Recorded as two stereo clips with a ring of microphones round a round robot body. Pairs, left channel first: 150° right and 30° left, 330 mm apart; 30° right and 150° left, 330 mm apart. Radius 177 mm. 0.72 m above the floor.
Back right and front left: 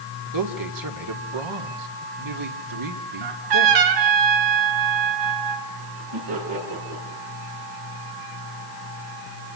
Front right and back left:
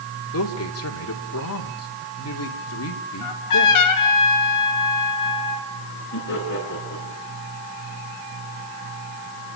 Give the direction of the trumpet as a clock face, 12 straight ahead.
12 o'clock.